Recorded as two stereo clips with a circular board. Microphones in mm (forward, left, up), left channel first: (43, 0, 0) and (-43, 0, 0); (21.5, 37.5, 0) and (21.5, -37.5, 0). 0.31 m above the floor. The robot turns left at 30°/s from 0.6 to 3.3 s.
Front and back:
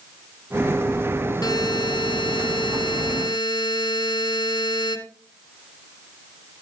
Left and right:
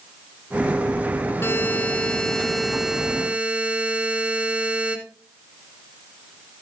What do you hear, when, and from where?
1.4 s a buzzer: 35° left, 1.2 m; by 5.0 s 20° right, 1.2 m